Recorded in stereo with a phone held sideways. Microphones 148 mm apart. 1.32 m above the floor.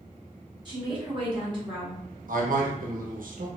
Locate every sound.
0.7 s a woman speaking: 35° right (ahead or behind), 1.5 m
2.3 s a man speaking: 70° right (ahead or behind), 0.9 m